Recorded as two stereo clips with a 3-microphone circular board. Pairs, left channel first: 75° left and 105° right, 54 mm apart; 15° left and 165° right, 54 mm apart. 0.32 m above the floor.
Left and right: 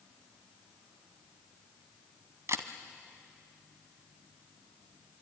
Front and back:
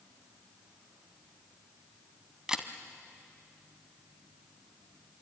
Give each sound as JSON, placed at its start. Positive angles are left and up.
{"t": 2.5, "sound": "a camera shutter", "azimuth_deg": -90, "distance_m": 1.2}